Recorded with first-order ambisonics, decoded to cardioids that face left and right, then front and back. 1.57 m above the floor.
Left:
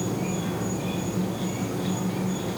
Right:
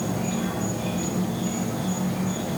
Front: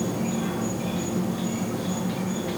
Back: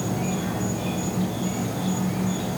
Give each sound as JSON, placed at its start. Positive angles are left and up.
{"t": 0.0, "sound": "an insect", "azimuth_deg": -145, "distance_m": 2.5}